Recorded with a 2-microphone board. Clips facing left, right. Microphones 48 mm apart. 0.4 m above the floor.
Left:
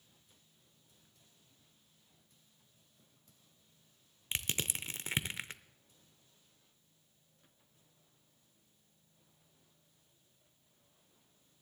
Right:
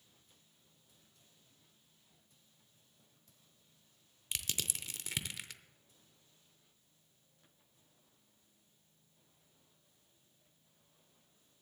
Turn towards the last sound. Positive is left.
turn(degrees=35)  # may be behind; listen again after turning